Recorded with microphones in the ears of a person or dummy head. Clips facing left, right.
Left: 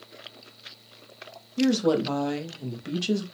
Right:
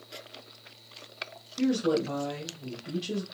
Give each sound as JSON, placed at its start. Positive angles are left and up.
{"t": 1.6, "sound": "a woman speaking", "side_deg": 70, "distance_m": 0.8}